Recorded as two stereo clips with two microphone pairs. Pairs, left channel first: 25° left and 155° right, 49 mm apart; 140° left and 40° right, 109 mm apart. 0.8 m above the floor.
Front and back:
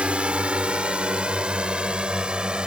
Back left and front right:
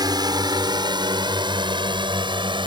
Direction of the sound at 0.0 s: 90° right.